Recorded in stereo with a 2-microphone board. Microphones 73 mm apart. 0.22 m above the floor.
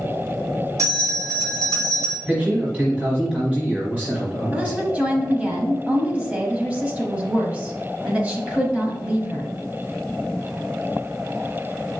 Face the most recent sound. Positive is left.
turn(degrees=-20)  # may be behind; listen again after turning